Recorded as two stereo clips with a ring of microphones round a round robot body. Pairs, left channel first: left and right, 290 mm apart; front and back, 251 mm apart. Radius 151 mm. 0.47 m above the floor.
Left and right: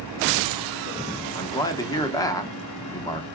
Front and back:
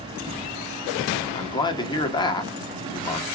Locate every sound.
1.3 s a man speaking: 35° left, 1.1 m